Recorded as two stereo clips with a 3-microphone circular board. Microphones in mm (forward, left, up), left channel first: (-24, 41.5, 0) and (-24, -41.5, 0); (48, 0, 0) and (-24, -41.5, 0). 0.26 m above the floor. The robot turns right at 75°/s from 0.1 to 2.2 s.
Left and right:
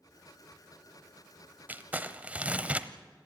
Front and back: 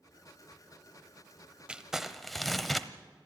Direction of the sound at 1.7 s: 90° right.